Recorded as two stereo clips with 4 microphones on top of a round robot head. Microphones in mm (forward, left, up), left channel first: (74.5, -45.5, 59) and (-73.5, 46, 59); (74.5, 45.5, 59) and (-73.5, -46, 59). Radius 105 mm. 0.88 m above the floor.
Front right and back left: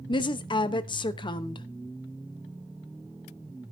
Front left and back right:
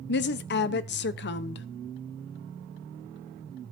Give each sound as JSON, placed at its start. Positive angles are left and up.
{"t": 0.1, "sound": "a woman speaking", "azimuth_deg": 30, "distance_m": 0.8}